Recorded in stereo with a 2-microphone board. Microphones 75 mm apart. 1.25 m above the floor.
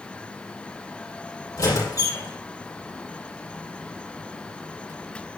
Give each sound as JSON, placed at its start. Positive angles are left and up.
{"t": 1.6, "sound": "a squeak", "side_deg": 50, "distance_m": 5.0}